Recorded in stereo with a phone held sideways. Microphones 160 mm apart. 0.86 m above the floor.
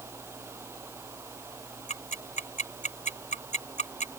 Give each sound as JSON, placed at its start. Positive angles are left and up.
{"t": 0.0, "sound": "a fan", "side_deg": -15}
{"t": 1.9, "sound": "ticking", "side_deg": 55}